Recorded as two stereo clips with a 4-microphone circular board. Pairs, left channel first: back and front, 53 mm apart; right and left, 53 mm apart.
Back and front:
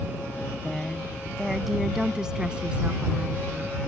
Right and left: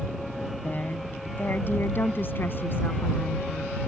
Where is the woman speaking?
110° right; by 3.8 s 55° right.